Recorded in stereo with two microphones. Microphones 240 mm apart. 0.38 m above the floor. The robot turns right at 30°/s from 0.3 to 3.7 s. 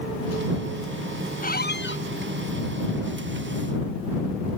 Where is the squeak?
35° left (ahead or behind); by 2.0 s 55° left (ahead or behind).